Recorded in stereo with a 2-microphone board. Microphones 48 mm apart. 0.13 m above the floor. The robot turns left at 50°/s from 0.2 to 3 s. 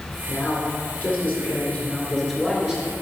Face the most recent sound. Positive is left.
turn(degrees=-30)